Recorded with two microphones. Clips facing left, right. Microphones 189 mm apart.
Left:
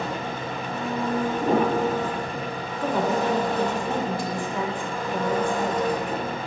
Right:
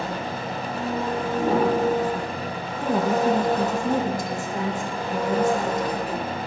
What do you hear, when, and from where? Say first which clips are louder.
0.0 s an engine running: right 1 dB; 35° right (ahead or behind), 3.5 m
1.4 s a piano: right 2 dB; centre (ahead or behind), 3.5 m
2.8 s a woman speaking: right 2 dB; 45° right (ahead or behind), 1.8 m